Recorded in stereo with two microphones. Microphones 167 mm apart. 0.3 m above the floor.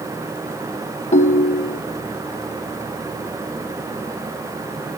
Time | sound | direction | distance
1.1 | a ringtone | 40° left (ahead or behind) | 0.5 m